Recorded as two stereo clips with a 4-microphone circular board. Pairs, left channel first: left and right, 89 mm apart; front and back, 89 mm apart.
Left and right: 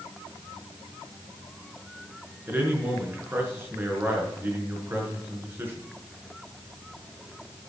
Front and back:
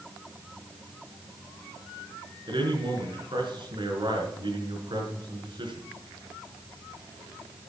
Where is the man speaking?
155° right, 5 m.